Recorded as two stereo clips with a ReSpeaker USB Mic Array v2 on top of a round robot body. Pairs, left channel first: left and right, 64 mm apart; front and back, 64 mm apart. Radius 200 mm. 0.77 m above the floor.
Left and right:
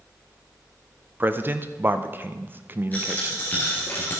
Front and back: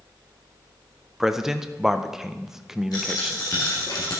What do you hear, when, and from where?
1.2 s a man speaking: 105° right, 0.9 m
2.9 s a dropped coin: 30° left, 1.6 m